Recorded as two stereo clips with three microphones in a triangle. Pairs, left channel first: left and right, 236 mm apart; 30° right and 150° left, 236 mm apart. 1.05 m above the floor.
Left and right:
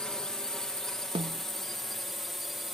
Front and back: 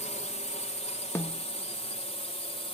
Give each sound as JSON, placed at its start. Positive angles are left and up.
{"t": 0.0, "sound": "a drone", "azimuth_deg": 5}
{"t": 1.1, "sound": "a snare drum", "azimuth_deg": -90}